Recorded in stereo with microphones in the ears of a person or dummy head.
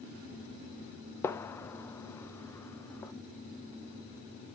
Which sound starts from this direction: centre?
A gunshot, at 1.2 s.